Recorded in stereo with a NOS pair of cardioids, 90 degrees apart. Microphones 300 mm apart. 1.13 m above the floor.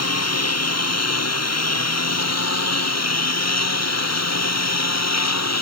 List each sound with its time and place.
0.0 s a lawn mower: 50° left; by 5.6 s 55° left